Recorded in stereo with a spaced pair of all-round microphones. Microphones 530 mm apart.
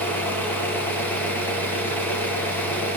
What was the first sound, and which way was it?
An engine running, 5° left (ahead or behind).